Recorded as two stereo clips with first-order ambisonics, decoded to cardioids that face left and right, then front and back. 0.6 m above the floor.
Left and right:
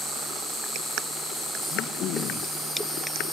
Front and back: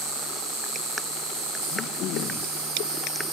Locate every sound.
0.0 s an insect: 165° left, 6.5 m
1.7 s throat clearing: 45° left, 3 m